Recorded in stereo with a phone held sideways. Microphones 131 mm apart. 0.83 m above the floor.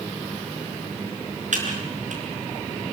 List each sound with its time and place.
1.5 s typing on a keyboard: 65° right (ahead or behind), 5.5 m